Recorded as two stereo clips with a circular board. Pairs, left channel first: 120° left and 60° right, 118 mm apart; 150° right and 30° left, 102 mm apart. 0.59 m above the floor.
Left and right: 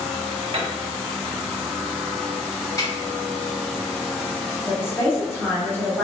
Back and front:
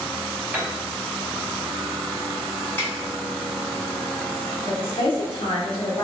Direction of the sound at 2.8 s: 160° left.